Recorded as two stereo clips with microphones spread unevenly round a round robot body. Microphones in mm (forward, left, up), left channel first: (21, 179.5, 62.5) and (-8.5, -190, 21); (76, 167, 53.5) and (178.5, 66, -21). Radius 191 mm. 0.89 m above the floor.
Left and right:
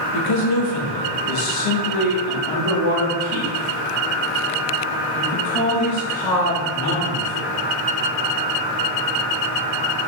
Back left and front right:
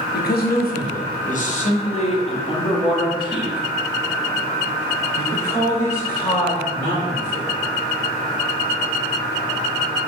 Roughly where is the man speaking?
Left.